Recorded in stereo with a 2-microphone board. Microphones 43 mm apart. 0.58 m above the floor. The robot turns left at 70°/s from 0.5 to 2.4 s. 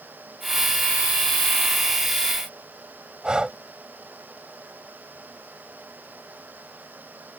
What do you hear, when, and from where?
3.2 s breathing: 20° right (ahead or behind)